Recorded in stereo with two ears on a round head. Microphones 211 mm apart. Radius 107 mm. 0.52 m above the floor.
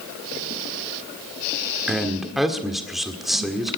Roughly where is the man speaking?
Centre.